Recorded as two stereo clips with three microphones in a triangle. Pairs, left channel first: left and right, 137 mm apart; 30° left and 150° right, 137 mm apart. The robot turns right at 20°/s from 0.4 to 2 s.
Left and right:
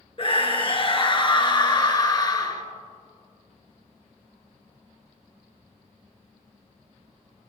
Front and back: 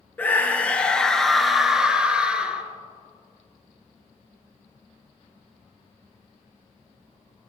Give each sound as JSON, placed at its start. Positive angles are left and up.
{"t": 0.2, "sound": "a scream", "azimuth_deg": 100, "distance_m": 1.8}